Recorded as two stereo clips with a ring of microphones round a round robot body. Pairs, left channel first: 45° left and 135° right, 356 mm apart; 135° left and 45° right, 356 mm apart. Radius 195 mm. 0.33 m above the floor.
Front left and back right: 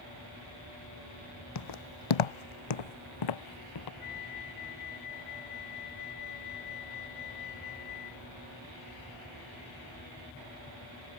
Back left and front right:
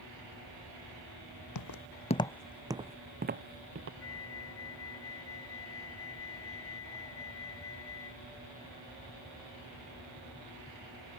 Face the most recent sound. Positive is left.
turn(degrees=80)